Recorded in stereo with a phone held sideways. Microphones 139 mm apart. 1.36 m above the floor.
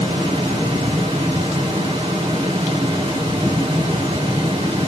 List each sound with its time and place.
0.0 s a fan: 50° right (ahead or behind), 3 m